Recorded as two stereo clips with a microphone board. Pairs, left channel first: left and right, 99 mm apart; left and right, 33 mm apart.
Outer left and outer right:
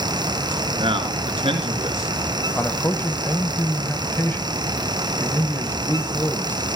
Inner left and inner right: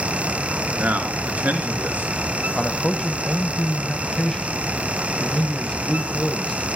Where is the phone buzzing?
No phone buzzing in this recording.